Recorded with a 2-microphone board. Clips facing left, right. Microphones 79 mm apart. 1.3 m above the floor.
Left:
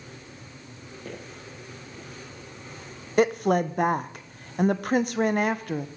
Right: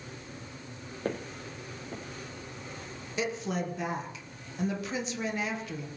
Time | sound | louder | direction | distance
1.1 | footsteps | right 6 dB | 55° right (ahead or behind) | 2.5 m
3.2 | a woman speaking | left 11 dB | 55° left (ahead or behind) | 1.0 m